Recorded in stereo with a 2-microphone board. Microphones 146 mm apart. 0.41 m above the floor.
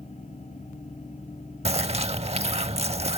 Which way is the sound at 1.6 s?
45° right (ahead or behind).